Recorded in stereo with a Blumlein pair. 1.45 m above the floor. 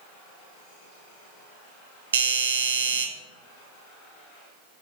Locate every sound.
2.1 s a doorbell: 65° right, 0.9 m